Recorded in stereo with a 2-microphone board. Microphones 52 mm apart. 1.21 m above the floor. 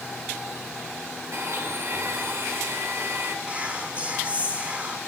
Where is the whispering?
25° right (ahead or behind), 2 m.